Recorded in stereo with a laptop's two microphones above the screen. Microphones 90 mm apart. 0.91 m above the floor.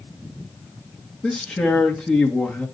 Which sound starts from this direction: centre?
A man speaking, at 1.2 s.